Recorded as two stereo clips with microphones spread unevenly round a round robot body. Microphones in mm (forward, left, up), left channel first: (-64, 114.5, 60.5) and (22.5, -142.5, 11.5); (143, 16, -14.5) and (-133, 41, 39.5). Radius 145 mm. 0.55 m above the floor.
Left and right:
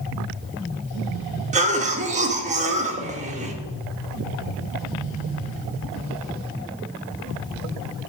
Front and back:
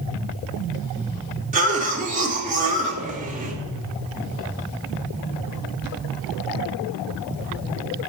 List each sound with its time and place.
1.5 s a cough: 120° right, 1.5 m